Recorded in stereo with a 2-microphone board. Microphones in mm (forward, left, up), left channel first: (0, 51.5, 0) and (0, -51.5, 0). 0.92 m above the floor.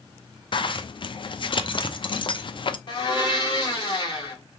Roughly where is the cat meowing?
No cat meowing in this recording.